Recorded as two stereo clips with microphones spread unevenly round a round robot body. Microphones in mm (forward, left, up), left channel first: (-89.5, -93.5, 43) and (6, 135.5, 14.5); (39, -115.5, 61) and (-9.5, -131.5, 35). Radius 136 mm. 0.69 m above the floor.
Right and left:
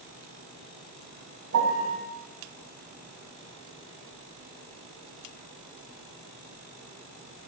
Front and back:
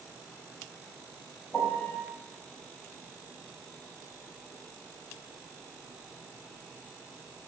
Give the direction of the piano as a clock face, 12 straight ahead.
9 o'clock.